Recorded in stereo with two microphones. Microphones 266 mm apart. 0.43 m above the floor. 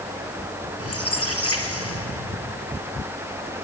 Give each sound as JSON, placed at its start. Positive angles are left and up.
{"t": 0.8, "sound": "a squeak", "side_deg": 60, "distance_m": 4.0}